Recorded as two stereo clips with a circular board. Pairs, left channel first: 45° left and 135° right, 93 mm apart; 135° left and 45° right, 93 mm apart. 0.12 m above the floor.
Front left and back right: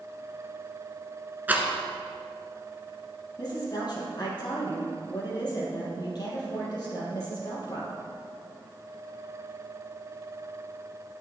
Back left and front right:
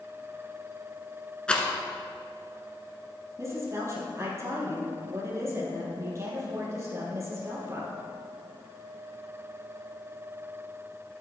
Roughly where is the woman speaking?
Ahead.